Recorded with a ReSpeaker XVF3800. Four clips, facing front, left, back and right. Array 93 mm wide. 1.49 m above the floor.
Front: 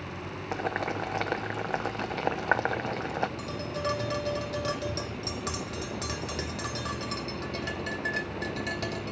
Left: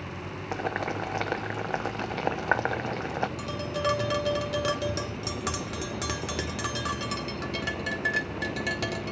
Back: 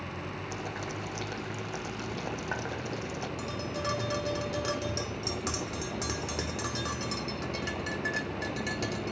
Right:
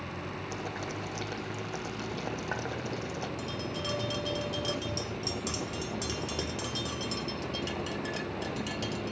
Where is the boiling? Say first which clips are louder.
Left 10 dB, front 10 dB; 50° left, 0.5 m.